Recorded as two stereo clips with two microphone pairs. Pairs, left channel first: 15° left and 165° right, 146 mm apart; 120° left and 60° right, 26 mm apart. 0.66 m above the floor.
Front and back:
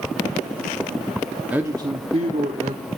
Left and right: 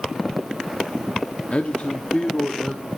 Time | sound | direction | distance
1.5 | a man speaking | 120° left | 0.9 m